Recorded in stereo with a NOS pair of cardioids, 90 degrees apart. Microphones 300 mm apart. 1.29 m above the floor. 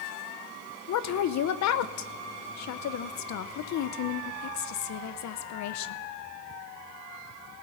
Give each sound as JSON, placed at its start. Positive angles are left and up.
{"t": 0.9, "sound": "a woman speaking", "azimuth_deg": 65, "distance_m": 0.9}